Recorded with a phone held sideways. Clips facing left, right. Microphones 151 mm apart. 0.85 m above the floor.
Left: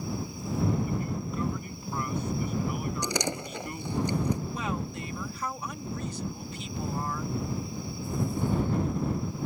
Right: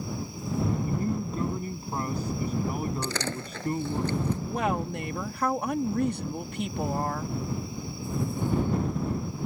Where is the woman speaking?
60° right (ahead or behind).